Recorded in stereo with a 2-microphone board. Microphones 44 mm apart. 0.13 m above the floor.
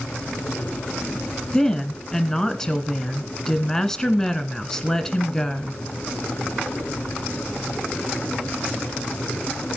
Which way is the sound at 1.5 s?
10° left (ahead or behind).